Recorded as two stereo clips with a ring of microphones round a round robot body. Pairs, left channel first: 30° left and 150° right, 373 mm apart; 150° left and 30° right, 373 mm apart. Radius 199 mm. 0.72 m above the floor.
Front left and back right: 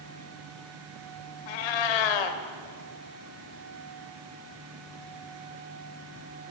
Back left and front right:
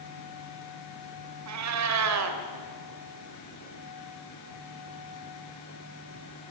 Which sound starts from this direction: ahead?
A cat meowing, at 1.5 s.